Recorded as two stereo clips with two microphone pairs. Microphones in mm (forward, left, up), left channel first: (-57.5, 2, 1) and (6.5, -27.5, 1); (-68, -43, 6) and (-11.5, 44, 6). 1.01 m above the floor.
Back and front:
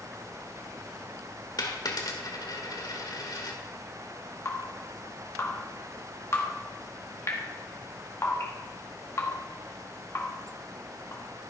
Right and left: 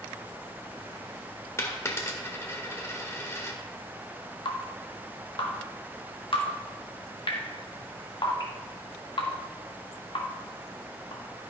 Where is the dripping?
155° right, 1.6 m.